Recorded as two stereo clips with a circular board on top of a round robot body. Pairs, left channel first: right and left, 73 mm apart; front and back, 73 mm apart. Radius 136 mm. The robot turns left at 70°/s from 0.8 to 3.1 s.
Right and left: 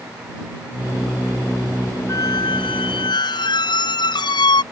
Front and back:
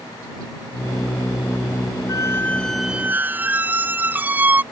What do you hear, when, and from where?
2.1 s a squeak: 45° right; by 4.6 s 115° right